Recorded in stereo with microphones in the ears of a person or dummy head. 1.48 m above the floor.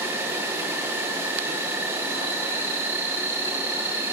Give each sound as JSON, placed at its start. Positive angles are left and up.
{"t": 0.0, "sound": "an insect", "side_deg": -10, "distance_m": 1.1}